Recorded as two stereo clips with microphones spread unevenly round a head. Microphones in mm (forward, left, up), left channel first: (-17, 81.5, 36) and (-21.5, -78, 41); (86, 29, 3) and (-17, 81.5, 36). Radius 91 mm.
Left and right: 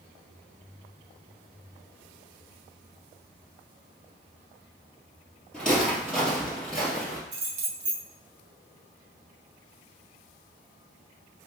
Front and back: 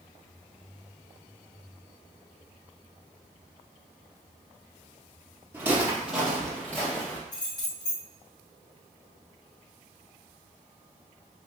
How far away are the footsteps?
About 1.8 m.